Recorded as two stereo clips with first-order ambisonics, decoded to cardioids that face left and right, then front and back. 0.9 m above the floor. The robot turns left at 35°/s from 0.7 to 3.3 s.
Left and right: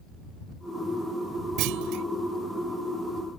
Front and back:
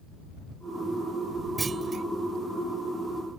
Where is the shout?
No shout in this recording.